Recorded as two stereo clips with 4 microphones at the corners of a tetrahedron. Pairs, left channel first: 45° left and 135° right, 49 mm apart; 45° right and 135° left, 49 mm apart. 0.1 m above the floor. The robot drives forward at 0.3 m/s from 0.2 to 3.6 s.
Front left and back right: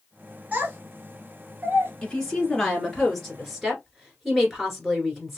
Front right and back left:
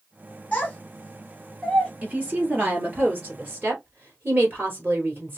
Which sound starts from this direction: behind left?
A woman speaking, at 2.0 s.